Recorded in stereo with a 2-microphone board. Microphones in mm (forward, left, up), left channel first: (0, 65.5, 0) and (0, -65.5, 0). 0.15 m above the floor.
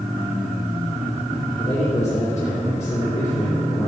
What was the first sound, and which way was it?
A man speaking, 55° left (ahead or behind).